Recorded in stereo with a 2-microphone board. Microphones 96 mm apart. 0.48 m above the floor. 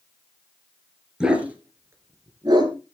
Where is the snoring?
I don't hear snoring.